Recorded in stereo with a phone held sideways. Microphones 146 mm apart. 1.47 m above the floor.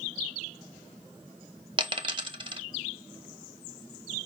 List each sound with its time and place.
1.8 s a dropped coin: 35° right (ahead or behind), 0.8 m